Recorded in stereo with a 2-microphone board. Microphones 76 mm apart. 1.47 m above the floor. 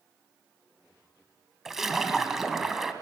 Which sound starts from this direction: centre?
A splash, at 1.6 s.